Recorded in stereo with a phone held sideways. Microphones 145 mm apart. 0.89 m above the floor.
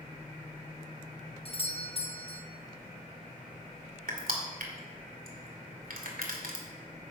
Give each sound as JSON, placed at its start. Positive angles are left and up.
{"t": 1.4, "sound": "a doorbell", "side_deg": 40, "distance_m": 1.1}
{"t": 4.1, "sound": "crushing", "side_deg": -75, "distance_m": 2.5}